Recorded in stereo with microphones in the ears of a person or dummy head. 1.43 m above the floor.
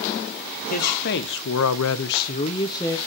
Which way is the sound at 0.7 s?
50° left (ahead or behind).